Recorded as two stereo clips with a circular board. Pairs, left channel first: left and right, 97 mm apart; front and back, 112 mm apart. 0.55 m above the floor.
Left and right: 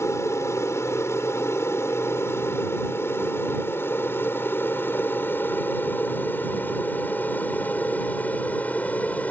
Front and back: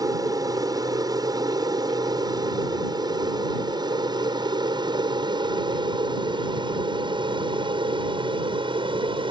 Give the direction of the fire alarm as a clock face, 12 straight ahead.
I don't hear a fire alarm.